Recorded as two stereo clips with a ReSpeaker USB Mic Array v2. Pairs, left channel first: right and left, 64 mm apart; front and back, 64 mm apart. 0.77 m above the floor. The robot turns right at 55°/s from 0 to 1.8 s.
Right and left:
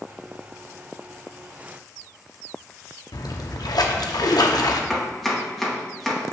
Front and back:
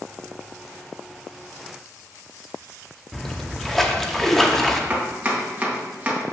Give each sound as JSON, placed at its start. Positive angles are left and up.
{"t": 3.1, "sound": "a splash", "azimuth_deg": -85, "distance_m": 0.6}
{"t": 4.9, "sound": "chopping", "azimuth_deg": 180, "distance_m": 1.1}